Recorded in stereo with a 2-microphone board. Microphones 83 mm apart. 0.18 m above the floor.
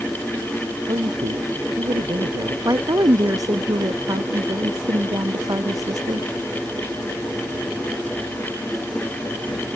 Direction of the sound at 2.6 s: 50° right (ahead or behind).